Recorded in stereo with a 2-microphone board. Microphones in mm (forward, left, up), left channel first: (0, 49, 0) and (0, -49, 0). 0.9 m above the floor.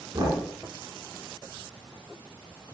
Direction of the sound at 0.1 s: 45° right (ahead or behind).